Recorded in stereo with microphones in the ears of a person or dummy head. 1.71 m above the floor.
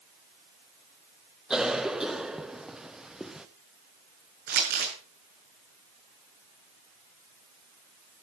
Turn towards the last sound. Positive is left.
turn(degrees=-50)  # may be behind; listen again after turning